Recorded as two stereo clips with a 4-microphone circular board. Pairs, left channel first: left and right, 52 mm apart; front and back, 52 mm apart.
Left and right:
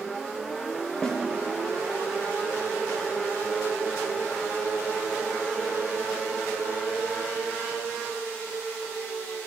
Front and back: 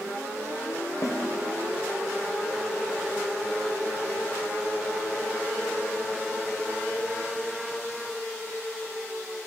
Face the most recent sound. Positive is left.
turn(degrees=15)